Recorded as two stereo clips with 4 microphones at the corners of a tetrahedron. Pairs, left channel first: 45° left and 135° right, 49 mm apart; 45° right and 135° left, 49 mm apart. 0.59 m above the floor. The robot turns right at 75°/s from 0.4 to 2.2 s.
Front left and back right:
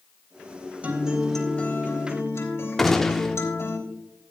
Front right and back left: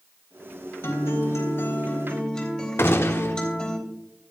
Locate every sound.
0.8 s a guitar: 75° right, 3.5 m; by 3.8 s 25° left, 3.5 m
2.8 s a gunshot: 35° right, 1.1 m